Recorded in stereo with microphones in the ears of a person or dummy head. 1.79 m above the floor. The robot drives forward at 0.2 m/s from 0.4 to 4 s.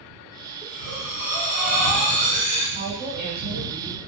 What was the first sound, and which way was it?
Breathing, 10° right (ahead or behind).